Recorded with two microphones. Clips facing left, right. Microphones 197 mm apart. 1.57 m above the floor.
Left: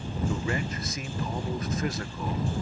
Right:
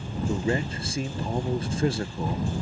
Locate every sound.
0.3 s a man speaking: 30° right (ahead or behind)